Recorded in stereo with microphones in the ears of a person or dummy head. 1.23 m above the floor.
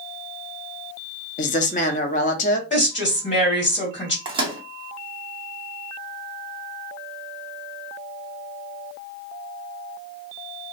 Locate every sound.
1.4 s a woman speaking: 35° left (ahead or behind), 0.5 m
2.7 s a woman speaking: 30° left (ahead or behind), 1.9 m
4.2 s a microwave: 35° right (ahead or behind), 0.6 m